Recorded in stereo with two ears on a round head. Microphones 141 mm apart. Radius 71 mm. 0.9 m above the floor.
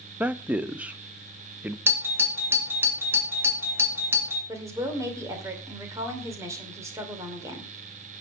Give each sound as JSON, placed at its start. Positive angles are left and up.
{"t": 0.2, "sound": "a man speaking", "side_deg": -10, "distance_m": 0.7}
{"t": 1.9, "sound": "a doorbell", "side_deg": -15, "distance_m": 2.5}
{"t": 4.5, "sound": "a woman speaking", "side_deg": -20, "distance_m": 2.5}